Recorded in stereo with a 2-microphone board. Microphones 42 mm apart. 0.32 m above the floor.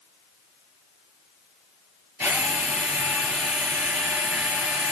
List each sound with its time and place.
2.2 s a drill: 75° right (ahead or behind), 5.5 m